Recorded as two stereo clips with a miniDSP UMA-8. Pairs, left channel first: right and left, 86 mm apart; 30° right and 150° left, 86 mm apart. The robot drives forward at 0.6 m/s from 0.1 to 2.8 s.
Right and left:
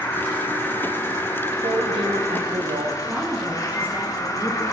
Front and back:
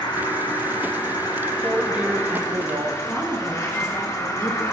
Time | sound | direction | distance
0.0 | an insect | 30° right | 2.5 m
1.6 | a woman speaking | 70° left | 1.4 m
3.1 | a woman speaking | 25° left | 2.5 m